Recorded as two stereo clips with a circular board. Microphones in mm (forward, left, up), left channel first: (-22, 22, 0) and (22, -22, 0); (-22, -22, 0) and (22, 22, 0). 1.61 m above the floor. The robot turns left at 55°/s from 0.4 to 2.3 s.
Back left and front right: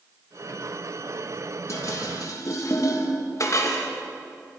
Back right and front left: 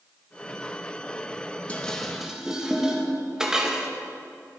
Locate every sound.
1.7 s dishes clattering: 160° left, 1.3 m; by 3.9 s 125° left, 1.3 m